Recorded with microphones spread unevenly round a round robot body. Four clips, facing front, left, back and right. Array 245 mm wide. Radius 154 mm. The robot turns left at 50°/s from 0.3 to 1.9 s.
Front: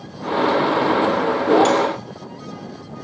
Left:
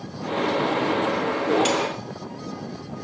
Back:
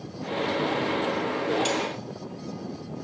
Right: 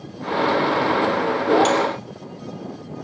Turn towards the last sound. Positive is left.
turn(degrees=-5)